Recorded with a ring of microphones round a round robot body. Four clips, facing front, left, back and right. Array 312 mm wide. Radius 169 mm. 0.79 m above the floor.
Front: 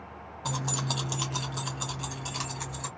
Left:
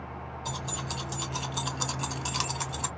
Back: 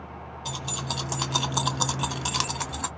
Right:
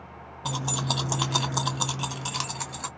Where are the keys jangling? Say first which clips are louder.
Right 8 dB, front 2 dB; 70° right, 0.8 m; by 2.9 s 170° left, 1.1 m.